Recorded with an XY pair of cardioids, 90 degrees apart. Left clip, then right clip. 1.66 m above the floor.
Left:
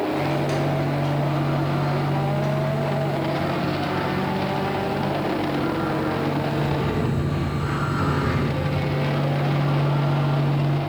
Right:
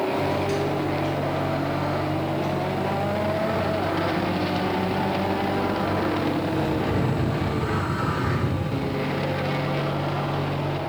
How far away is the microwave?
About 3.5 m.